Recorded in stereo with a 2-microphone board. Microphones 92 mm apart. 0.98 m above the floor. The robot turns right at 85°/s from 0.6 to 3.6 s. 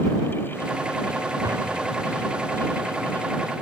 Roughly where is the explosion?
Ahead right.